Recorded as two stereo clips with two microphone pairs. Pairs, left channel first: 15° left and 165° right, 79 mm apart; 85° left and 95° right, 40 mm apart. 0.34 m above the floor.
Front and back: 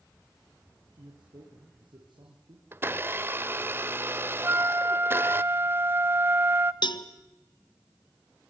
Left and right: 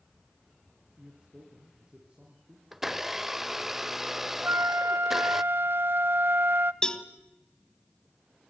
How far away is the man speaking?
About 5.5 m.